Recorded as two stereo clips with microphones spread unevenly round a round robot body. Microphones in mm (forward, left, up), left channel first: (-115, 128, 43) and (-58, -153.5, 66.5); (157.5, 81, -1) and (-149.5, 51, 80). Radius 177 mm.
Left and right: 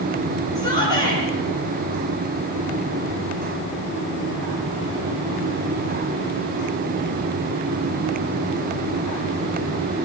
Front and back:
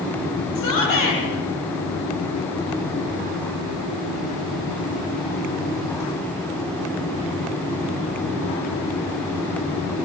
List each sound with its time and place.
0.6 s a shout: 20° left, 9.5 m